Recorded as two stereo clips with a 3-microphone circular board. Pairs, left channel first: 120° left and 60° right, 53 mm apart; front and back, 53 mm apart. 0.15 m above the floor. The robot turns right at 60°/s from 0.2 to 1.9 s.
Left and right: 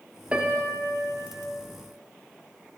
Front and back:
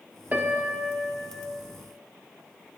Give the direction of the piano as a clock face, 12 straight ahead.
4 o'clock.